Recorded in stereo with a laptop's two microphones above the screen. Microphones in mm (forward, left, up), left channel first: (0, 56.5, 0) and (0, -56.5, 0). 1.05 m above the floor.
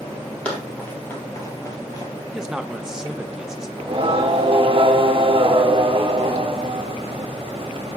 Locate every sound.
0.5 s running footsteps: 10° left (ahead or behind), 2.0 m; by 2.1 s 35° left (ahead or behind), 1.7 m
2.3 s a man speaking: 5° right (ahead or behind), 1.0 m
3.8 s singing: 45° right (ahead or behind), 1.3 m